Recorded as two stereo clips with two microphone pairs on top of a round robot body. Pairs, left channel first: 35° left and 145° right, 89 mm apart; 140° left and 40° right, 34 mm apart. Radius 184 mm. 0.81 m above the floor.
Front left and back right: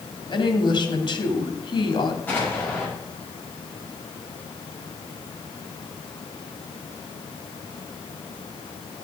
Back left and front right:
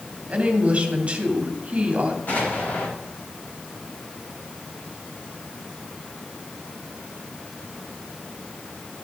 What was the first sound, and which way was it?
A woman speaking, 20° left.